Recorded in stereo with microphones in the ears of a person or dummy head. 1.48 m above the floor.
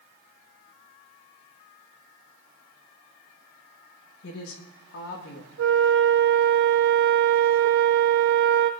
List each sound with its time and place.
4.2 s a woman speaking: 65° left (ahead or behind), 1.6 m; by 5.5 s 80° left, 2.0 m
5.6 s a flute: 60° right (ahead or behind), 0.7 m